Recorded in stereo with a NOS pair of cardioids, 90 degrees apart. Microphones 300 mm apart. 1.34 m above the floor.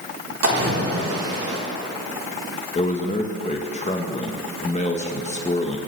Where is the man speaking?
25° left, 1.2 m.